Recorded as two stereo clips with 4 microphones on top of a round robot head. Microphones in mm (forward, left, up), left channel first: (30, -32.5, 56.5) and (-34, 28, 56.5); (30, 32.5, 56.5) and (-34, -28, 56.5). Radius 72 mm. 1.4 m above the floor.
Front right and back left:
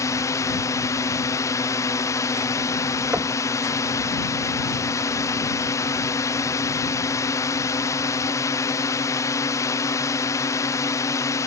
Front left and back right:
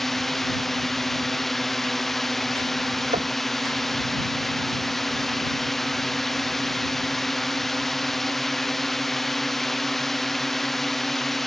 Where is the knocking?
150° right.